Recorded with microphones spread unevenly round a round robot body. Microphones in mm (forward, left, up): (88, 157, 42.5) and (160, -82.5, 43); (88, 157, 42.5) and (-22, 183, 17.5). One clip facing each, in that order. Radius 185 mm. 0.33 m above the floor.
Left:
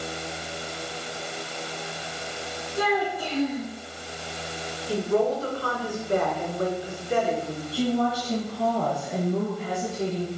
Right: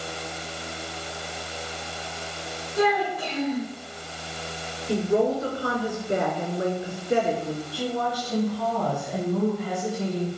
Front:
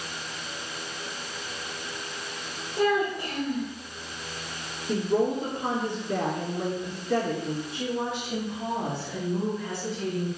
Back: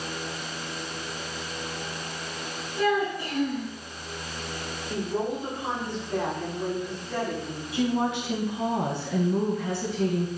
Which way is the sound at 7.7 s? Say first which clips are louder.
Left 7 dB, back 10 dB; straight behind.